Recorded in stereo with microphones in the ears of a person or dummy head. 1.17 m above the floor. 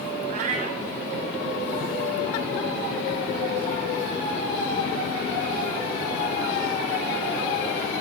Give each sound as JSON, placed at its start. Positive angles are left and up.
{"t": 0.3, "sound": "a cat meowing", "side_deg": -50, "distance_m": 0.9}